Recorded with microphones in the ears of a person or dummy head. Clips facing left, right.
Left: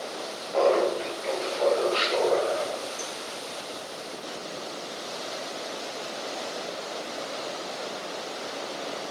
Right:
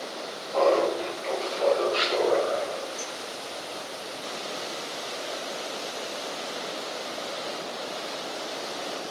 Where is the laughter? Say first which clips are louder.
Even; 20° left (ahead or behind), 1.2 m; by 2.9 s centre (ahead or behind), 2.5 m.